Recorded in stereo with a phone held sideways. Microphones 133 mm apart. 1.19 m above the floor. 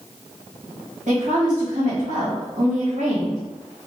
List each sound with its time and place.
1.1 s a woman speaking: 65° right (ahead or behind), 1.8 m